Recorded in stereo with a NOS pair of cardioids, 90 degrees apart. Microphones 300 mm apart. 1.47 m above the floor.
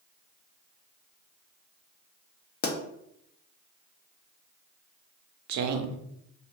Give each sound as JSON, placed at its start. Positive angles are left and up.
{"t": 2.6, "sound": "a pop", "azimuth_deg": 35, "distance_m": 0.6}
{"t": 5.5, "sound": "a woman speaking", "azimuth_deg": -65, "distance_m": 0.6}